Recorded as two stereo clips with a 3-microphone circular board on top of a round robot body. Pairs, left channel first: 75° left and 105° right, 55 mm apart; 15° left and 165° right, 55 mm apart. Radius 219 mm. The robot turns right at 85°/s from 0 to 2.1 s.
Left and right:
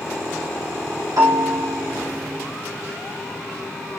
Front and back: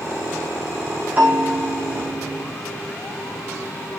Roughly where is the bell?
Right.